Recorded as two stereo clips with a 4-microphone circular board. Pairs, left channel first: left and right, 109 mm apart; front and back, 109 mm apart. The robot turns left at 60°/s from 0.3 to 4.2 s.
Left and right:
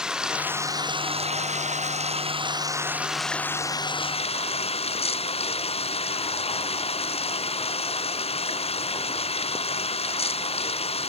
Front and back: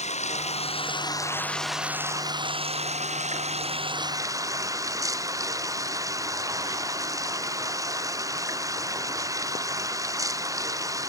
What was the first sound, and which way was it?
Running water, 5° right.